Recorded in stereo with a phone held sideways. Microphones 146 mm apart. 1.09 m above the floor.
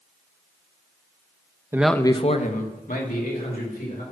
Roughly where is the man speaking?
Centre.